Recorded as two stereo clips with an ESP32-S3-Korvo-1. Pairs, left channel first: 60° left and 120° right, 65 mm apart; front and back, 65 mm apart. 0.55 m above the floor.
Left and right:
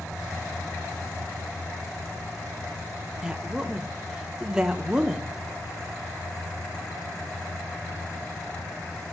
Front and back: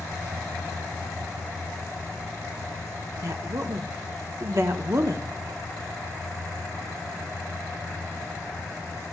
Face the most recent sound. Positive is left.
turn(degrees=165)